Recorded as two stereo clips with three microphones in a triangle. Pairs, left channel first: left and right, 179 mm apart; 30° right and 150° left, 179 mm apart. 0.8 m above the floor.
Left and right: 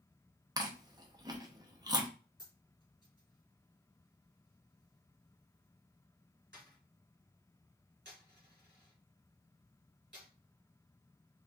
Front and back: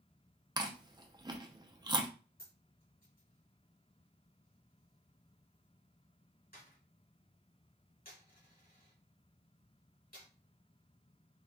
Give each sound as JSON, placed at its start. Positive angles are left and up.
{"t": 0.6, "sound": "chewing", "azimuth_deg": -150, "distance_m": 0.5}
{"t": 2.4, "sound": "a dropped coin", "azimuth_deg": -65, "distance_m": 1.8}